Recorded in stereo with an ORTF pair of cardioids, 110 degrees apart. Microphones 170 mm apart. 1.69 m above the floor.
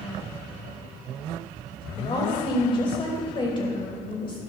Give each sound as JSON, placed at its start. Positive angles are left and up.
{"t": 2.0, "sound": "a woman speaking", "azimuth_deg": 30, "distance_m": 2.5}